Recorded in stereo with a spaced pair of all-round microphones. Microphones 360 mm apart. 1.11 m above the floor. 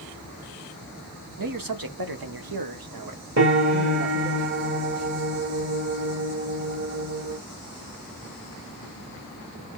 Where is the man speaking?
60° right (ahead or behind), 1.1 m; by 4.4 s 35° right (ahead or behind), 1.3 m.